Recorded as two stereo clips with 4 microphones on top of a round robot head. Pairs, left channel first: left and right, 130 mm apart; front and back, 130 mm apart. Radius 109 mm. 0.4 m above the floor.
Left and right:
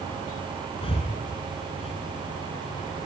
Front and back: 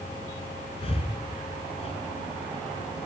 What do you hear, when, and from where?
0.8 s breathing: 45° left, 1.8 m